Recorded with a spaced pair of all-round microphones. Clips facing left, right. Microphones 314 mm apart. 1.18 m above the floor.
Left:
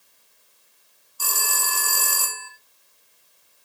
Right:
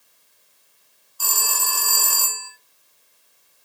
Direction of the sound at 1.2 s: 30° left (ahead or behind).